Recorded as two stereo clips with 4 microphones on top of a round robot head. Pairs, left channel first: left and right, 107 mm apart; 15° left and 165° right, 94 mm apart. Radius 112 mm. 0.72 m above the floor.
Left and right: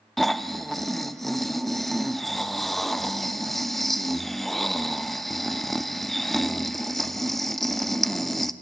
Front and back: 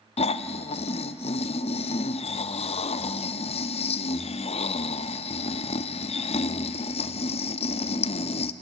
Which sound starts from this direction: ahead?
Snoring, at 0.2 s.